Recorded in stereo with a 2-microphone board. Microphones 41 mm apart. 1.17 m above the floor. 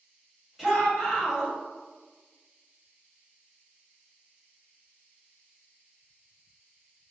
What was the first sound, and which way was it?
A shout, 5° right (ahead or behind).